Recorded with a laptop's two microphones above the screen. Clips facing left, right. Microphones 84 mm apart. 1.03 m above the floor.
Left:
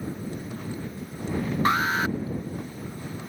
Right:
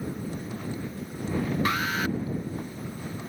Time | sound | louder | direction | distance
1.6 | an alarm | left 4 dB | 30° left (ahead or behind) | ?